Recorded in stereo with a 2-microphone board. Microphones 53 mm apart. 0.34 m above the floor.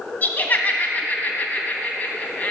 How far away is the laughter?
About 2 m.